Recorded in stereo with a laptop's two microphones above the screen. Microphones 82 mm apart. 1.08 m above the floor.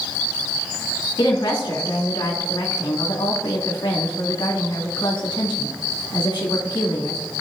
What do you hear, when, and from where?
1.2 s a woman speaking: 80° left, 2.0 m